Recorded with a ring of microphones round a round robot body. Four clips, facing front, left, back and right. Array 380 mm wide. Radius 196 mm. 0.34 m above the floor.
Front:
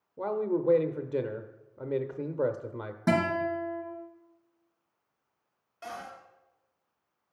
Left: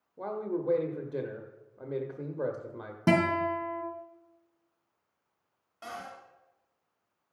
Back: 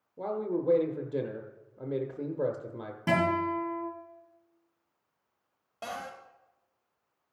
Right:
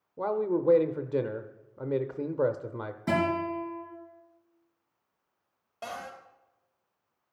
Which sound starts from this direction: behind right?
A cupboard door, at 5.8 s.